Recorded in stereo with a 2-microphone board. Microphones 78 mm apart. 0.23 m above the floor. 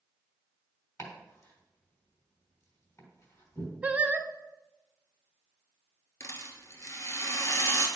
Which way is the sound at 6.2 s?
35° left (ahead or behind).